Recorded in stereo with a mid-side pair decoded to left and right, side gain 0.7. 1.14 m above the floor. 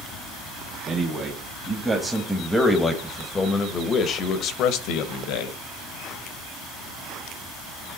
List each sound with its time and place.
0.9 s a man speaking: 20° right, 2.0 m; by 5.6 s 80° left, 1.4 m